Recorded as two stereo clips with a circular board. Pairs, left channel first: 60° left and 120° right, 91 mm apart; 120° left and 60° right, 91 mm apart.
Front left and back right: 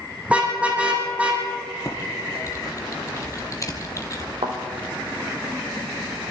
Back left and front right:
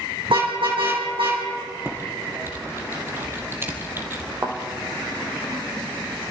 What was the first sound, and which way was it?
A car horn, 45° right.